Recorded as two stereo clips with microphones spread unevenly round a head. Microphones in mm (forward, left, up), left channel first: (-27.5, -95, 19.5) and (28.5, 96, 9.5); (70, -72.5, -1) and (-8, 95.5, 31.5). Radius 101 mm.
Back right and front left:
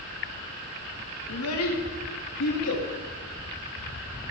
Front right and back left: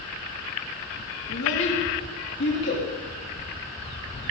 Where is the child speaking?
100° right, 1.6 m; by 2.8 s 105° right, 2.5 m.